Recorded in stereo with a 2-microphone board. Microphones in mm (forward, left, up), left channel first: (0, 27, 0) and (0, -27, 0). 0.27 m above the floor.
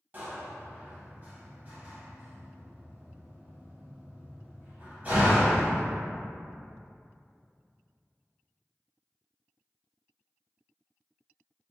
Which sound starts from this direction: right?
A door slam, at 0.1 s.